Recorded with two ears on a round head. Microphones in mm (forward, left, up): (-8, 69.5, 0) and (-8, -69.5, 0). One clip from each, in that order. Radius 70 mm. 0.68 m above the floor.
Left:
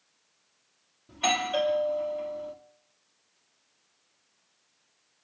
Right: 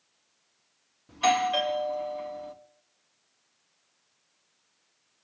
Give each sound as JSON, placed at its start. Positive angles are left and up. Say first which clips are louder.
{"t": 1.1, "sound": "a doorbell", "louder": "right 3 dB", "side_deg": -30, "distance_m": 1.6}